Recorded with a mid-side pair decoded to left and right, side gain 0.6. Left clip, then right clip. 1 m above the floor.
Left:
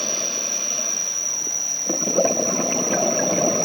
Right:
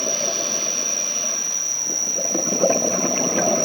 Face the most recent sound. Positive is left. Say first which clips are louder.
# right 2 dB
turn(degrees=-5)